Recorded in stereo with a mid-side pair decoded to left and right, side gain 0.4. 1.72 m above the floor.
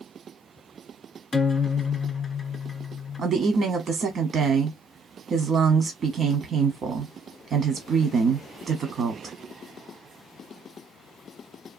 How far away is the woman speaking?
About 0.7 m.